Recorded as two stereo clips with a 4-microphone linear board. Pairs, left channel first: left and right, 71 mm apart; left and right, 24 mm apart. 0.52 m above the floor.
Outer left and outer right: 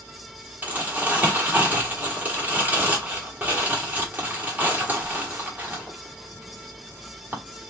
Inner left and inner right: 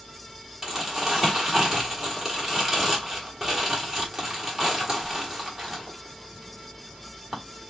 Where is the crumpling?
25° right (ahead or behind), 1.5 m.